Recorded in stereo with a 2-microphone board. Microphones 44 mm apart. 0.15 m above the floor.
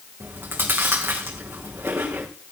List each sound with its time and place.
0.2 s chewing: 55° right (ahead or behind), 2.5 m